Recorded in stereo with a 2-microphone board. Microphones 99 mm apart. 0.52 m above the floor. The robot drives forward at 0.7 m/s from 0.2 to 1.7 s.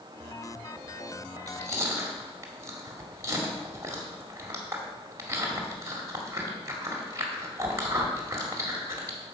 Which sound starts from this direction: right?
Chewing, at 1.4 s.